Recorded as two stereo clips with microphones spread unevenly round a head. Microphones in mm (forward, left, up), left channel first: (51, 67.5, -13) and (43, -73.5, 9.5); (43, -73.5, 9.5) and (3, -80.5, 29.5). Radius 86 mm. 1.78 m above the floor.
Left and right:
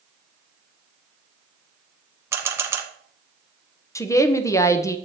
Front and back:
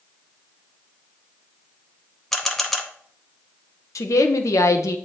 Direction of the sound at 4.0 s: 15° left.